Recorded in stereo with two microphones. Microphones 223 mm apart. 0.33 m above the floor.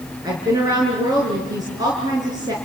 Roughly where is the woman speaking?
Centre.